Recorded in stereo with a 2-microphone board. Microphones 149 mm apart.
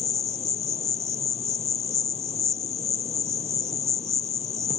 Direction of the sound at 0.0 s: 45° left (ahead or behind).